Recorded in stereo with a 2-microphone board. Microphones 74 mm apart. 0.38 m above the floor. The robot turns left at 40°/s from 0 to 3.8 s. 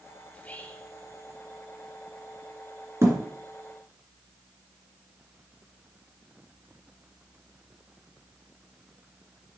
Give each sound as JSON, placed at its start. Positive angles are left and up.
{"t": 0.3, "sound": "whispering", "side_deg": 20, "distance_m": 0.9}
{"t": 3.0, "sound": "a thud", "side_deg": -40, "distance_m": 2.0}